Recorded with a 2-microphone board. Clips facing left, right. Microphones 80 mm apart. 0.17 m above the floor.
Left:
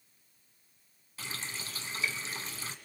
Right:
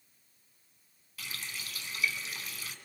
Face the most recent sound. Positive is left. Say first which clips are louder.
# left 2 dB
turn(degrees=30)  # may be behind; listen again after turning